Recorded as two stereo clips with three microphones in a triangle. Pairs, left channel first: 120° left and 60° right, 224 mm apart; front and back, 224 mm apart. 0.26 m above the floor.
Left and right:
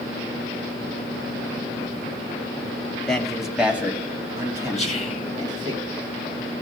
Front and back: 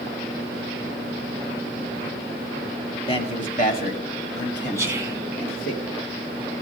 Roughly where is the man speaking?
Ahead left.